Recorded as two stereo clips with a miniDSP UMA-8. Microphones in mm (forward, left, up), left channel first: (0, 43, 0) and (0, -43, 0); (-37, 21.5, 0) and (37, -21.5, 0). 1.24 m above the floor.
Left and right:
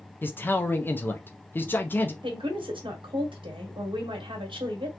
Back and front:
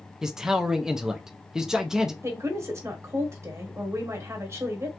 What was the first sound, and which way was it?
A man speaking, 50° left.